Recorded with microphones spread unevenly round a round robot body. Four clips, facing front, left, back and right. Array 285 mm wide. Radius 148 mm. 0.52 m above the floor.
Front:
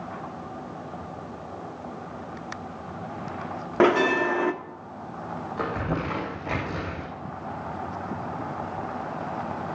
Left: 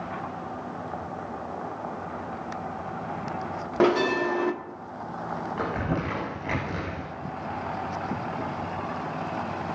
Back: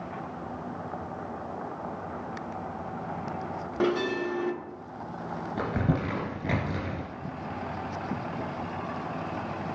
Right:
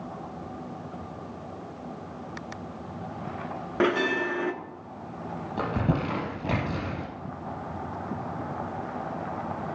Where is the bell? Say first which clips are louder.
Left 3 dB, front 7 dB; 5° left, 1.3 m.